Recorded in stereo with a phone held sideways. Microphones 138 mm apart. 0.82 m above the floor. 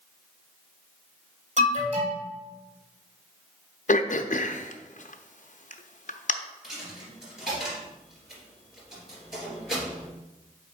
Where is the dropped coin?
5° right (ahead or behind), 3 m.